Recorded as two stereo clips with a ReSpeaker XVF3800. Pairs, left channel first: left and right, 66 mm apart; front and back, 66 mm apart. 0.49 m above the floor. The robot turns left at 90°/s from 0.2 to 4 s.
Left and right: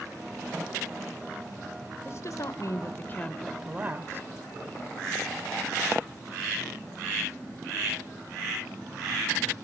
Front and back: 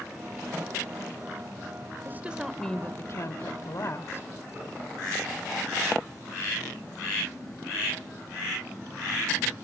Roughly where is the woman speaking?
Behind left.